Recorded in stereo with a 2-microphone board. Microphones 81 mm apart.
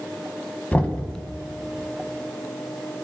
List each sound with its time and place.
0.7 s knocking: 20° left (ahead or behind), 1.3 m